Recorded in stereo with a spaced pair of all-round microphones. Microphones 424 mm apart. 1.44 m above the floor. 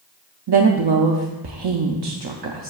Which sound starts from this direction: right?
A woman speaking, at 0.5 s.